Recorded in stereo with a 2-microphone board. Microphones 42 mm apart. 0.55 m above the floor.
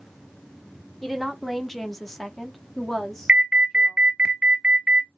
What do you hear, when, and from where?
1.0 s a woman speaking: 5° left (ahead or behind), 1.1 m
3.3 s an alarm: 20° right (ahead or behind), 0.6 m